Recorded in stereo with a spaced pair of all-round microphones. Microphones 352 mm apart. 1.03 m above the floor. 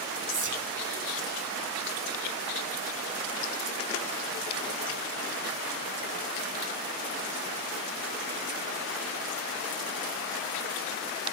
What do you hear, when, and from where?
0.3 s whispering: 60° right (ahead or behind), 0.7 m